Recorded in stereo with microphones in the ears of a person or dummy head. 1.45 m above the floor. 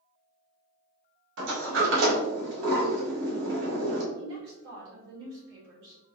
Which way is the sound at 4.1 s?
75° right (ahead or behind).